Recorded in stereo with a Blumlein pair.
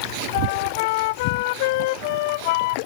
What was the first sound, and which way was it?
A flute, 50° left.